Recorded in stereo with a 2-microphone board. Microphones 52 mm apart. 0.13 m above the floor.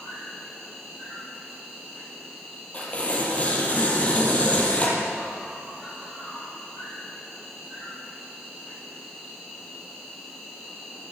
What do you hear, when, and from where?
0.0 s an insect: centre (ahead or behind), 6 m
2.7 s tearing paper: 30° left (ahead or behind), 3.5 m